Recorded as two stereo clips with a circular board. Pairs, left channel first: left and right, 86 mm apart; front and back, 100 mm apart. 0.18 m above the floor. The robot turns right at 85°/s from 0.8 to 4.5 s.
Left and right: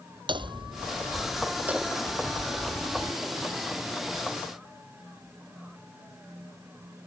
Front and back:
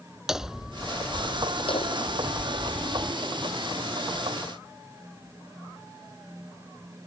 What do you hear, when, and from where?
0.3 s hammering: 95° right; by 3.1 s 105° left